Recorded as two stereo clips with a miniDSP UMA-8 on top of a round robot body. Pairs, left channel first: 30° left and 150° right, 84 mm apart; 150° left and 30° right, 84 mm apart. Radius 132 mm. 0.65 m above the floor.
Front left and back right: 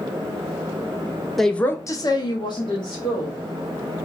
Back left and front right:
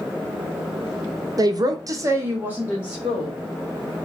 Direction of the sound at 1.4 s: 60° right.